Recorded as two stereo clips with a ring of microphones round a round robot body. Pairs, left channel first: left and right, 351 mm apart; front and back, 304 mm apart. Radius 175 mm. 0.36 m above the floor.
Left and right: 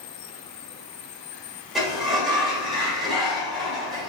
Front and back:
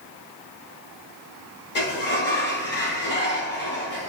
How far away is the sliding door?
About 1.2 m.